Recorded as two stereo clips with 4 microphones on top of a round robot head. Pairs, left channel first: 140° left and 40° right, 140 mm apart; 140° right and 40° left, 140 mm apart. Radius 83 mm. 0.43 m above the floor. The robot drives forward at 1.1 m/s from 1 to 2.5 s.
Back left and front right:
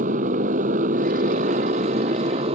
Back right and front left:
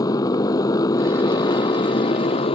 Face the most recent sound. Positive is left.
turn(degrees=-90)